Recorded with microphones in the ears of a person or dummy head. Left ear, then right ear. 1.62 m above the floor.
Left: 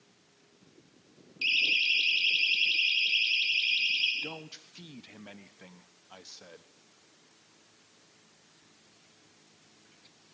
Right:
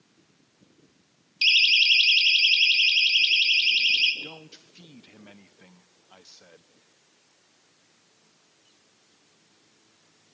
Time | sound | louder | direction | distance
1.4 | a siren | right 8 dB | 40° right (ahead or behind) | 4.5 m
4.2 | a man speaking | left 1 dB | 15° left (ahead or behind) | 1.3 m